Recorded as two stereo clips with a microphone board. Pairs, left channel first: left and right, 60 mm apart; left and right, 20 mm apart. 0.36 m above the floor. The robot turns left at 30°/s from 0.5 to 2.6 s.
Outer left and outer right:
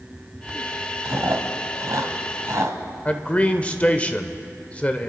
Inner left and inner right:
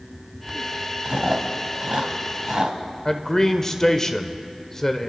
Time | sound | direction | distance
1.1 | chewing | 55° right (ahead or behind) | 1.5 m
3.0 | a man speaking | 20° left (ahead or behind) | 0.8 m